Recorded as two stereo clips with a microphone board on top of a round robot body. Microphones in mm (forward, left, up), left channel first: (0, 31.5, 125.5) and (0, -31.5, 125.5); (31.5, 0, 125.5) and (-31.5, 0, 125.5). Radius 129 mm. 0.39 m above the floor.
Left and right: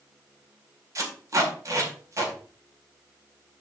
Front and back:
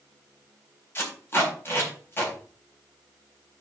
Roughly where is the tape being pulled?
Ahead right.